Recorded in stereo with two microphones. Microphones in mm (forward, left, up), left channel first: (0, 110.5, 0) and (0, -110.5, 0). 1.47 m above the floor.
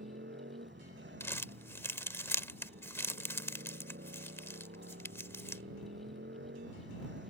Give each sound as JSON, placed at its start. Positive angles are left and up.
{"t": 0.0, "sound": "a motorcycle", "side_deg": -55}
{"t": 1.2, "sound": "crumpling", "side_deg": 10}